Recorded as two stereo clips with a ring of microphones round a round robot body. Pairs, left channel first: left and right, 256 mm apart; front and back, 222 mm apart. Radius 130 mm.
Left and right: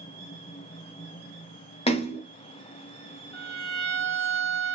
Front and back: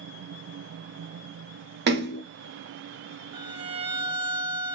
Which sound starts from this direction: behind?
A violin, at 3.3 s.